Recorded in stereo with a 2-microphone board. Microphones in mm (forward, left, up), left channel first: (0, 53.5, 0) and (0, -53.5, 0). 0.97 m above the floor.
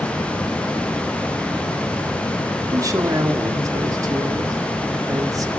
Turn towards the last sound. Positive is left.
turn(degrees=-35)  # may be behind; listen again after turning